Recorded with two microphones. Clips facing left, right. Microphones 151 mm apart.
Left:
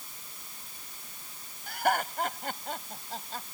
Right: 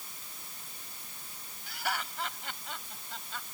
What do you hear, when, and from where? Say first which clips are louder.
1.7 s laughter: left 9 dB; 55° left (ahead or behind); by 3.4 s 40° left (ahead or behind)